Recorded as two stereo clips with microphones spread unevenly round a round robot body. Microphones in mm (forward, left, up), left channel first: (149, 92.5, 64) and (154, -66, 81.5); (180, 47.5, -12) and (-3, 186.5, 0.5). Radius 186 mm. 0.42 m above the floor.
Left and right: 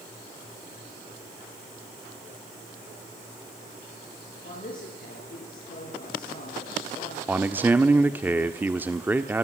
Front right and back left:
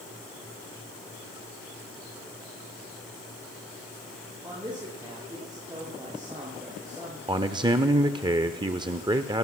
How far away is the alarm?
No alarm in this recording.